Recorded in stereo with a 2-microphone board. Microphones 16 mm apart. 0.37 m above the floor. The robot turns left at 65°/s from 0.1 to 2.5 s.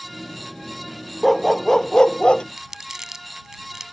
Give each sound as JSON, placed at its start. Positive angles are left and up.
{"t": 1.2, "sound": "a dog barking", "azimuth_deg": -175}
{"t": 2.6, "sound": "crumpling", "side_deg": -30}